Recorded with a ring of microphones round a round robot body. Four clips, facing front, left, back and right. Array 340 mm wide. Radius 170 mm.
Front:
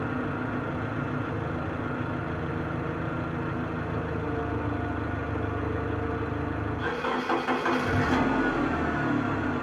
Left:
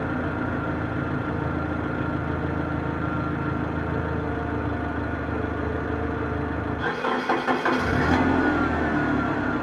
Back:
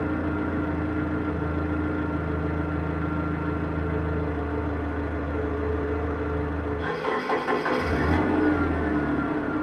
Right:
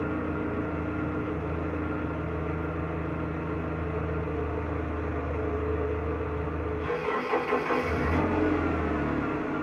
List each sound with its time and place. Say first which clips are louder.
0.0 s an engine running: left 3 dB, back 4 dB; 95° left, 3.5 m